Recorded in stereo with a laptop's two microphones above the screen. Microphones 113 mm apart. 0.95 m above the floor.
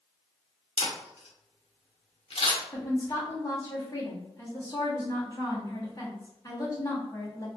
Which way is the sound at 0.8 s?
65° left (ahead or behind).